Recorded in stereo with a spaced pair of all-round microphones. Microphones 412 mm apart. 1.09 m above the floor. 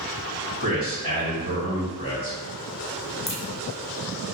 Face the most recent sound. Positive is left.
turn(degrees=50)  # may be behind; listen again after turning